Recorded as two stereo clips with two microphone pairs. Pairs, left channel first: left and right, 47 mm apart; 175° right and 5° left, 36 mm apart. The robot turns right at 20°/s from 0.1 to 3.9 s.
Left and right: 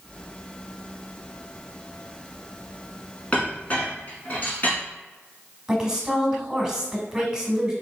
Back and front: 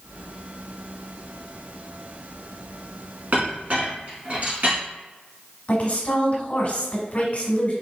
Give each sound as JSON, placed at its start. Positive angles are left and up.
{"t": 3.3, "sound": "a clink", "azimuth_deg": 25, "distance_m": 1.9}
{"t": 5.7, "sound": "a woman speaking", "azimuth_deg": -165, "distance_m": 1.4}